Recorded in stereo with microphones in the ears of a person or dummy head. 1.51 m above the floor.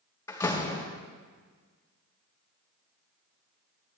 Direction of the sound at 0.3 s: 15° left (ahead or behind).